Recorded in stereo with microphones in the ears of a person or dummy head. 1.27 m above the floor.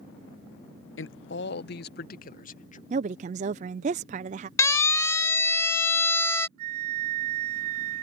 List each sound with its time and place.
1.0 s a man speaking: 65° left (ahead or behind); by 2.8 s 40° left (ahead or behind)
2.9 s a woman speaking: 40° right (ahead or behind)
4.6 s a siren: 20° left (ahead or behind); by 6.5 s 15° left (ahead or behind)
6.6 s a flute: 50° right (ahead or behind)